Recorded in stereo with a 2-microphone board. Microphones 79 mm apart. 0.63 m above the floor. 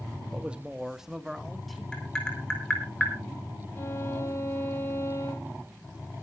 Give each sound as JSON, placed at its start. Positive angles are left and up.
{"t": 0.3, "sound": "a man speaking", "side_deg": -15, "distance_m": 0.9}
{"t": 1.9, "sound": "tapping", "side_deg": 10, "distance_m": 4.0}
{"t": 3.8, "sound": "a violin", "side_deg": 30, "distance_m": 2.5}